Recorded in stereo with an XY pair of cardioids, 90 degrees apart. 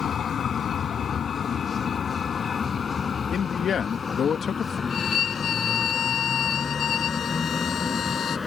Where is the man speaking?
60° left.